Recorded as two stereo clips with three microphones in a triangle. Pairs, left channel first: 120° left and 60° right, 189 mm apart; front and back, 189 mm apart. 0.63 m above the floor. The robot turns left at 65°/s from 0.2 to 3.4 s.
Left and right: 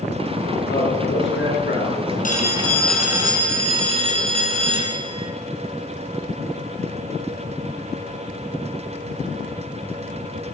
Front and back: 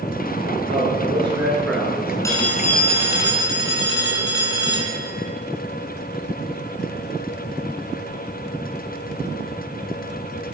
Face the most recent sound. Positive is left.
turn(degrees=0)